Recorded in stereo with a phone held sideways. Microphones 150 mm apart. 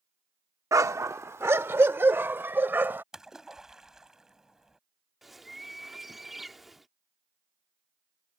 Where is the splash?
5° right (ahead or behind).